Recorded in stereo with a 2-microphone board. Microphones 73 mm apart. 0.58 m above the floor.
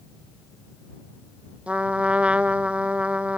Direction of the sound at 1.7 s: 15° right (ahead or behind).